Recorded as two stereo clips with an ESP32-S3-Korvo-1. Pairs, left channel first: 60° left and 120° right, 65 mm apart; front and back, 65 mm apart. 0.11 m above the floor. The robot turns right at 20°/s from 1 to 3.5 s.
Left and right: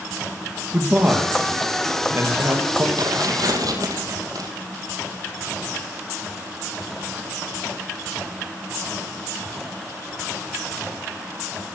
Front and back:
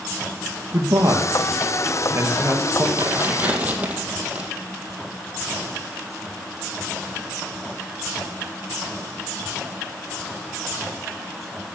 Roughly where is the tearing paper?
Behind right.